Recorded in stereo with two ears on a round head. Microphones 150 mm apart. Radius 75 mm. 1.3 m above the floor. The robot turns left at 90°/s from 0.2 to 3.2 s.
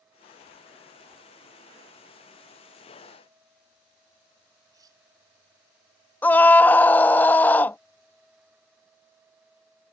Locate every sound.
4.7 s cutlery clinking: 20° right (ahead or behind)
6.2 s a scream: 10° left (ahead or behind)